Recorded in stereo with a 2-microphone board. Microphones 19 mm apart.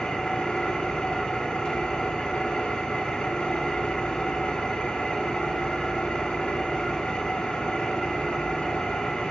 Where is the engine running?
65° left (ahead or behind), 2 m.